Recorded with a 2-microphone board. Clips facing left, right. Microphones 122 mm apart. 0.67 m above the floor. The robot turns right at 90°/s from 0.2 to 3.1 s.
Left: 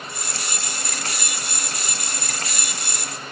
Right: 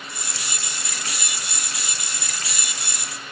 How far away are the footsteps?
No footsteps in this recording.